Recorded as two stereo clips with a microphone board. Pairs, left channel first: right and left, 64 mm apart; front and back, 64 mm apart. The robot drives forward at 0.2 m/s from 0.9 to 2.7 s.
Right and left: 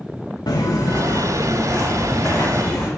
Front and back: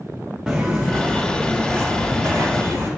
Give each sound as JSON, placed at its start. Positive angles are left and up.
{"t": 0.5, "sound": "footsteps", "azimuth_deg": -100, "distance_m": 0.6}